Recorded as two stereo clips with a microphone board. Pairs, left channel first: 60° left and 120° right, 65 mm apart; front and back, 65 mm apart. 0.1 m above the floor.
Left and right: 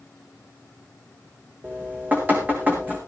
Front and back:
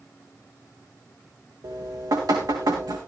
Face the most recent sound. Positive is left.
turn(degrees=175)